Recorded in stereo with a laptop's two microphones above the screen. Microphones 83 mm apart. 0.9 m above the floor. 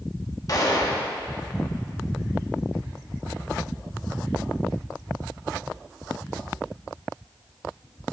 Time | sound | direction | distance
0.5 | a gunshot | 45° left (ahead or behind) | 1.4 m